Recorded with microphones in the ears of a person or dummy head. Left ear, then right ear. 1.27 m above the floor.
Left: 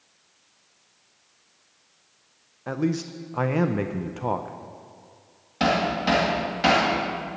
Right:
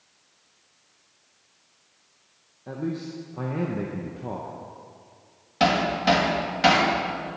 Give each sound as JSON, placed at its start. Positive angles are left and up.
{"t": 2.7, "sound": "a man speaking", "side_deg": 50, "distance_m": 0.5}
{"t": 5.6, "sound": "hammering", "side_deg": -10, "distance_m": 1.8}